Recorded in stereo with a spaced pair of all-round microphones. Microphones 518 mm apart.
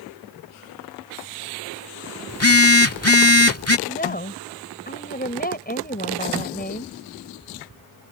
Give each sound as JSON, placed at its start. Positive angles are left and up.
{"t": 2.3, "sound": "a phone buzzing", "side_deg": 25}
{"t": 3.9, "sound": "a woman speaking", "side_deg": 15}